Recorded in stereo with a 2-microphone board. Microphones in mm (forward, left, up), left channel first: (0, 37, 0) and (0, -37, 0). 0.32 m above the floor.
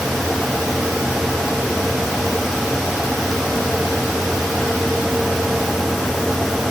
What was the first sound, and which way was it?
Only background noise.